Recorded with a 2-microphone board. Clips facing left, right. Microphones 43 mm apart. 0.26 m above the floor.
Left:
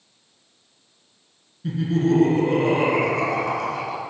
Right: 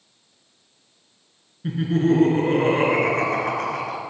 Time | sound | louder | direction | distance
1.6 | laughter | right 1 dB | 30° right (ahead or behind) | 3 m